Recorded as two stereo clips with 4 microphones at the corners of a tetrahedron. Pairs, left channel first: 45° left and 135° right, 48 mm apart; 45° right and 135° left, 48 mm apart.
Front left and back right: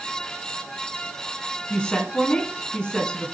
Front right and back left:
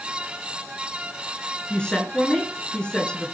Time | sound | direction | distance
1.7 | a woman speaking | 5° right | 1.6 m